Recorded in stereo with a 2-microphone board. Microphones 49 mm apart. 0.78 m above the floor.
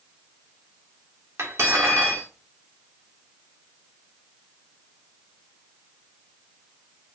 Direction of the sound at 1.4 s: 70° right (ahead or behind).